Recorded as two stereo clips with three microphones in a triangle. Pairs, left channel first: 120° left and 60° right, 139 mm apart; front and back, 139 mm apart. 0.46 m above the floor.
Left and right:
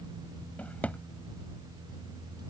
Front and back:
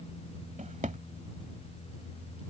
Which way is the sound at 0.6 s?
160° right.